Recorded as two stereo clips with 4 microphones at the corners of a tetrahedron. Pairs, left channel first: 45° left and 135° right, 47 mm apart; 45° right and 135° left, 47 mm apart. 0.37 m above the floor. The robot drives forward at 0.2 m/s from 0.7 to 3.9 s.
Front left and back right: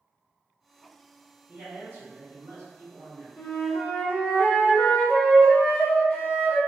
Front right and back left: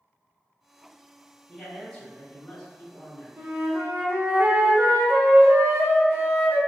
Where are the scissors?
I don't hear scissors.